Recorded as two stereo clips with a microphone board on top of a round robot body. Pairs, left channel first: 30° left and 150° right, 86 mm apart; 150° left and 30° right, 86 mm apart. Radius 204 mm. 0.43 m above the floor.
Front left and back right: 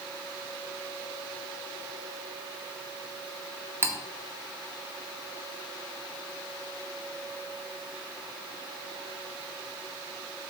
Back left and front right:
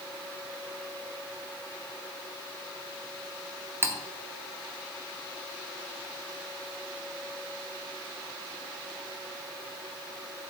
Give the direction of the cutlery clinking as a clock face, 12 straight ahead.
3 o'clock.